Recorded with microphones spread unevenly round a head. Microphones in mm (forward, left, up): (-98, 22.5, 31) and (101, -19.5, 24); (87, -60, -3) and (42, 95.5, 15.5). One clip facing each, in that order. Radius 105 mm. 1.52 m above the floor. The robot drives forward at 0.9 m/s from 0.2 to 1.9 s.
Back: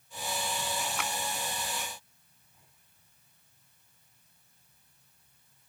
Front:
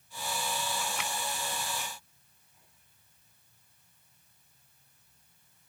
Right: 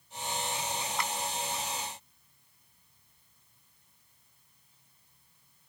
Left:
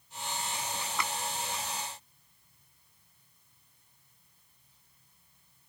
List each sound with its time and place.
1.0 s a clap: 120° left; by 1.1 s 125° left